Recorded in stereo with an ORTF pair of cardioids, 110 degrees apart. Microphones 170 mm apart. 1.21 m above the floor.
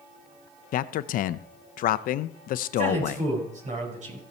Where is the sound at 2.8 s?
50° right, 5.5 m.